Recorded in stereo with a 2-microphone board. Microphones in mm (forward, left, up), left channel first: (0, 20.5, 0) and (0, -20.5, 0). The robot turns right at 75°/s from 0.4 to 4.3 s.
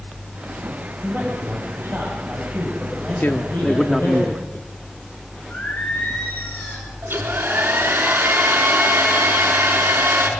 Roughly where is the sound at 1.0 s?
Behind right.